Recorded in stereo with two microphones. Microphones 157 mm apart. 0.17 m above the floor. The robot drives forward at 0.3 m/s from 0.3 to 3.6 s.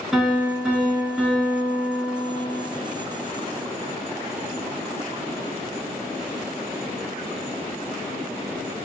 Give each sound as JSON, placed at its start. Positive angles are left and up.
{"t": 0.1, "sound": "a piano", "side_deg": 0, "distance_m": 0.9}